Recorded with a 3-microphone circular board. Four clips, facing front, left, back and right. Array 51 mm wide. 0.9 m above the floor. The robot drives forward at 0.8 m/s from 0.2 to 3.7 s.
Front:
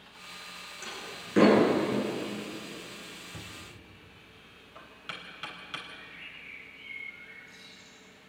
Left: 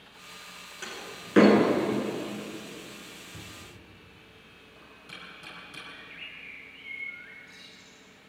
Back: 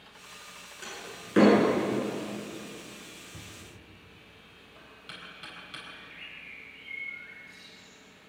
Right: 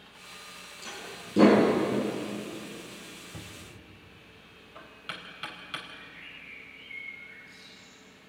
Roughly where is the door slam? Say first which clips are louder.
Left 2 dB, even; left.